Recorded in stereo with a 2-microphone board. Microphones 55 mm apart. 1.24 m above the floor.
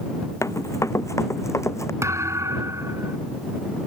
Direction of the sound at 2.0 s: 70° right (ahead or behind).